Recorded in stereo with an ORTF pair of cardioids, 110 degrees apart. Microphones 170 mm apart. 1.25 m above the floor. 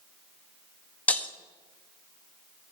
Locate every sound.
1.1 s breaking glass: 10° left, 1.1 m